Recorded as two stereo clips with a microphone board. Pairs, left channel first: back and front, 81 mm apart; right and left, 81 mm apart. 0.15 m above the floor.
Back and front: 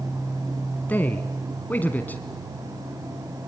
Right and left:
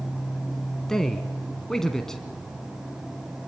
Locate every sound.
0.9 s a man speaking: 165° right, 1.1 m